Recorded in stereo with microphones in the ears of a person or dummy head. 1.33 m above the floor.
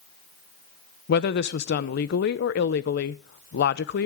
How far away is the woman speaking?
About 0.7 m.